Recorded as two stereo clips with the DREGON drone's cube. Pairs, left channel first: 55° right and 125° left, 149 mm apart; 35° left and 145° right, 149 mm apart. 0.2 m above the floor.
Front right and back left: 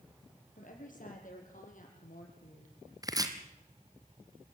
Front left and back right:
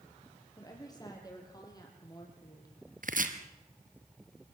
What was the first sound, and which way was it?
A woman speaking, 30° right.